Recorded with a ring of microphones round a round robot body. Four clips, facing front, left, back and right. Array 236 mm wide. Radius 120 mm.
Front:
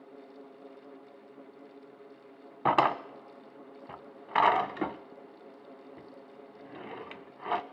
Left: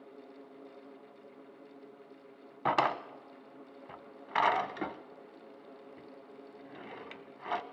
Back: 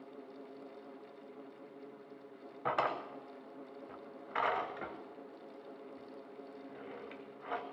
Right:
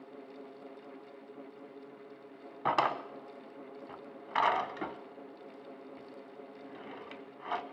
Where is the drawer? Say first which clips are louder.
Left 1 dB, front 9 dB; 10° left, 0.5 m.